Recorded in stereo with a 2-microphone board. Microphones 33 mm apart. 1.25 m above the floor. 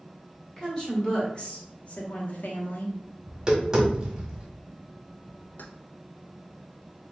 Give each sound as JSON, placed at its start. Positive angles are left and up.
{"t": 0.6, "sound": "a woman speaking", "side_deg": 25, "distance_m": 2.0}
{"t": 3.3, "sound": "tapping", "side_deg": -15, "distance_m": 1.4}
{"t": 5.6, "sound": "keys jangling", "side_deg": 65, "distance_m": 0.6}